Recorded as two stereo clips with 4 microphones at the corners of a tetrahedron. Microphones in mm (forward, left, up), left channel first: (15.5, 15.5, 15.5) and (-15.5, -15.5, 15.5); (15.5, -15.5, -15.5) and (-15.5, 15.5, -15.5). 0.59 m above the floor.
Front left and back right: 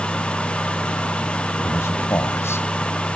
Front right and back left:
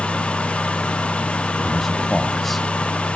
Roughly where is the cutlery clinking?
No cutlery clinking in this recording.